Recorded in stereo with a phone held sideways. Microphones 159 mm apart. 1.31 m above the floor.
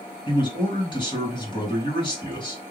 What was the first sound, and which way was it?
A man speaking, 30° left (ahead or behind).